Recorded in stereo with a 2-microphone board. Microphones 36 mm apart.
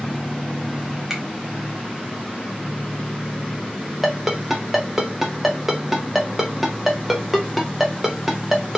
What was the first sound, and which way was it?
A finger snap, 15° right (ahead or behind).